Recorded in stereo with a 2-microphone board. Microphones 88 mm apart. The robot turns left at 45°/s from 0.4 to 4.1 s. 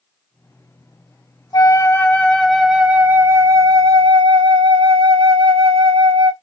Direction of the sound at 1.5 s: 45° left.